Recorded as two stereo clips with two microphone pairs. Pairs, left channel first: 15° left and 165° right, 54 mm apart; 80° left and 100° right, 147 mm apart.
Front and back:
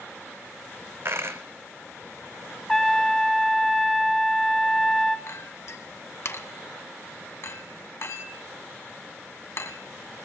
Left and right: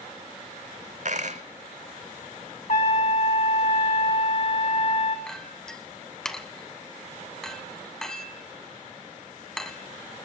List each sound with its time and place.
1.1 s a dropped coin: 130° right, 0.9 m
2.7 s a trumpet: 95° left, 1.8 m
5.3 s a clink: 5° right, 1.3 m